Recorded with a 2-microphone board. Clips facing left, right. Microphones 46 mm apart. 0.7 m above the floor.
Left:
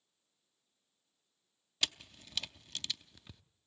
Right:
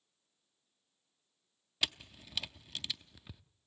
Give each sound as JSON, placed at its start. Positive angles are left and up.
{"t": 1.8, "sound": "a camera shutter", "side_deg": -10, "distance_m": 0.5}